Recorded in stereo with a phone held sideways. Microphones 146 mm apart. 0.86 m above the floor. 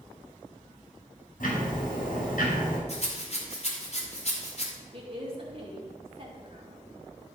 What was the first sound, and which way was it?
Ticking, 75° left (ahead or behind).